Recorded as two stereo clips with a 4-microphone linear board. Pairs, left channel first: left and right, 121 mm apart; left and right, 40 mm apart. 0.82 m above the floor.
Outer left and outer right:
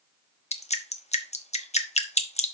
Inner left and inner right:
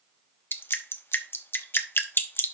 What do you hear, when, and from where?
0.5 s dripping: 65° left (ahead or behind), 0.8 m